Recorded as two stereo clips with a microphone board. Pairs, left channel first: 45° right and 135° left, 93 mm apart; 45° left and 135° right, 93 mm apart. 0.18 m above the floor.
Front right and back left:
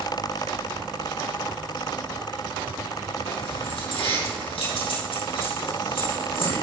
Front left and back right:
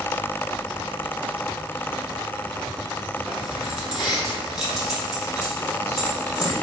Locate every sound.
3.3 s keys jangling: 50° right, 4.5 m